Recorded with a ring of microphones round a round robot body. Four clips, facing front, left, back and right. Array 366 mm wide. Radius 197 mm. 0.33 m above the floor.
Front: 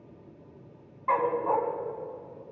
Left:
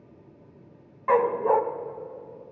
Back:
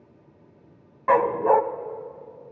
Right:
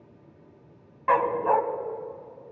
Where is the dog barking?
170° right, 1.2 m.